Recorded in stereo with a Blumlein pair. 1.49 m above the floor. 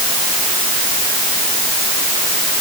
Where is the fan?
No fan in this recording.